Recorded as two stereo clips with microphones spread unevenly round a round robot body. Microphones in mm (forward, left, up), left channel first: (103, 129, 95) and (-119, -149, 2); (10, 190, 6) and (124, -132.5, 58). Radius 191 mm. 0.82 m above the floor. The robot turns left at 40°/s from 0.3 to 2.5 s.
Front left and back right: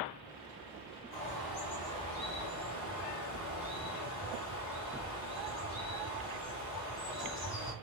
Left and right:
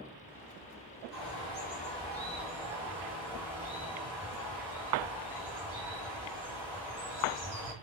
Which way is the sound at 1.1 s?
65° left.